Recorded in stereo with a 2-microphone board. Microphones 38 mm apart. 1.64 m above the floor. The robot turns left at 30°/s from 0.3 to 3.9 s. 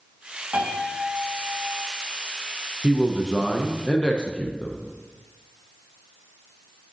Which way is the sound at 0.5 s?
70° right.